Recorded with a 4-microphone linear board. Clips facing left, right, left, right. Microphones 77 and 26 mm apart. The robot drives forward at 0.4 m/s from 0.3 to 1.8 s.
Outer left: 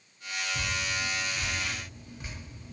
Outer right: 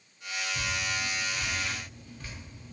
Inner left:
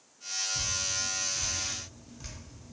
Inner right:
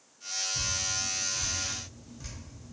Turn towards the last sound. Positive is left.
turn(degrees=20)  # may be behind; listen again after turning